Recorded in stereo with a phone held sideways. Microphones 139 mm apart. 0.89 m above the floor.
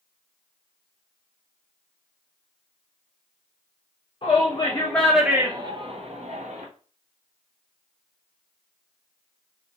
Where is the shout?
40° left (ahead or behind), 0.9 m; by 6.7 s 65° right (ahead or behind), 1.1 m.